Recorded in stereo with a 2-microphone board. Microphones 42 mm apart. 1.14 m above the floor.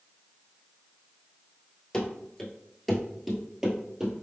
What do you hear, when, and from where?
1.9 s running footsteps: 20° left (ahead or behind), 1.2 m; by 4.1 s 15° right (ahead or behind), 1.4 m